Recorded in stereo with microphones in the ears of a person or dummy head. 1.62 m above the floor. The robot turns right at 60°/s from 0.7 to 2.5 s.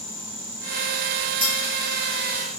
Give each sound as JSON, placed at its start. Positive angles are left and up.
{"t": 1.4, "sound": "cutlery clinking", "side_deg": -30, "distance_m": 1.3}